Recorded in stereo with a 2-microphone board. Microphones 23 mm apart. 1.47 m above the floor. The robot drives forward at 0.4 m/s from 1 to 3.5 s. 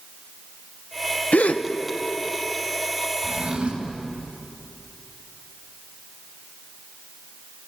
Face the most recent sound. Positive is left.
turn(degrees=-55)  # may be behind; listen again after turning